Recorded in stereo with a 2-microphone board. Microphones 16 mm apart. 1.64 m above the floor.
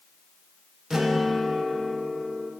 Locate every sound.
0.9 s a guitar: 35° right (ahead or behind), 1.5 m